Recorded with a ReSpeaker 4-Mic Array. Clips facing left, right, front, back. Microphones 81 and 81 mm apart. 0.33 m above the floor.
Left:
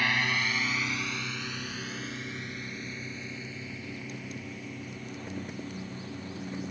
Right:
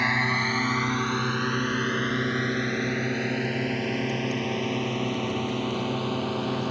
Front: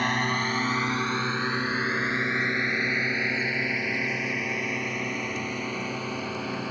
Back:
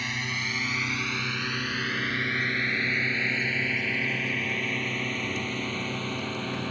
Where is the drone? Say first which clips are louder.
Right 4 dB, front 7 dB; 25° right; by 6.7 s 85° right.